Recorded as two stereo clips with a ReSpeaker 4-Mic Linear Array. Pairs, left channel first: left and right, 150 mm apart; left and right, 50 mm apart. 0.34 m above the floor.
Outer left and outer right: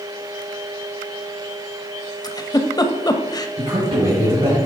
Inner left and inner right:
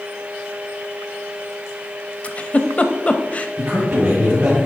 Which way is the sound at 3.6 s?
40° right (ahead or behind).